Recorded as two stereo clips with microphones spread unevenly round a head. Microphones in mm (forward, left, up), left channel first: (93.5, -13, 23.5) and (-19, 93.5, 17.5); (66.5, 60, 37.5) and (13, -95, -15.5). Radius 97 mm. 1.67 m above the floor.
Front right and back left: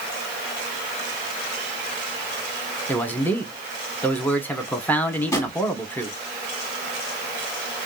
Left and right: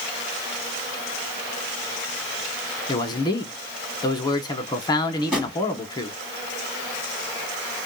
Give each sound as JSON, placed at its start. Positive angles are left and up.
{"t": 2.9, "sound": "a man speaking", "azimuth_deg": 30, "distance_m": 0.9}
{"t": 5.2, "sound": "a drawer", "azimuth_deg": 10, "distance_m": 1.2}